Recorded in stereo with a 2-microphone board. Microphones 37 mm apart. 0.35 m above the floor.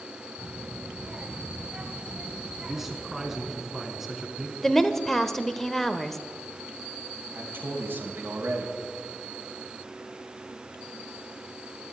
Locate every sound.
0.4 s a child speaking: 25° right (ahead or behind), 1.4 m
2.6 s a man speaking: 5° right (ahead or behind), 3 m
4.6 s a woman speaking: 10° left (ahead or behind), 0.9 m
7.3 s a man speaking: 60° right (ahead or behind), 3 m